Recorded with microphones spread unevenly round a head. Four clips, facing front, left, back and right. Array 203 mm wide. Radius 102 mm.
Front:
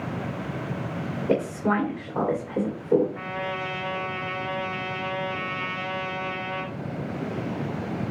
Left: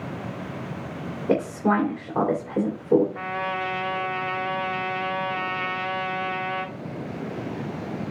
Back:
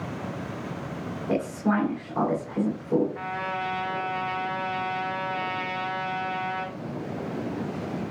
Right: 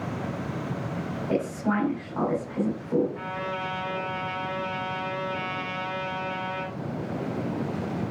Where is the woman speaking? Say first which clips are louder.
Left 5 dB, front 1 dB; 75° left, 2.5 m.